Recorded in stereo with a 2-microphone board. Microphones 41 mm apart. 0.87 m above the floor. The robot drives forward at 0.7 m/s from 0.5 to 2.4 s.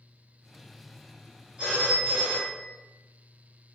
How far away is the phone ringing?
About 1.3 m.